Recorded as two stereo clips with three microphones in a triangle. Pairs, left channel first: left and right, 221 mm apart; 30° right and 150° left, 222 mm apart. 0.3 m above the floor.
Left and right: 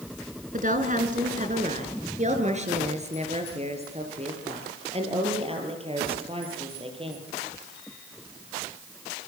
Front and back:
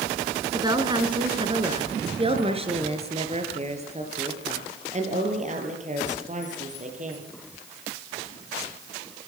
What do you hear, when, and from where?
0.5 s a woman speaking: 140° right, 3 m; by 7.3 s 155° right, 7.5 m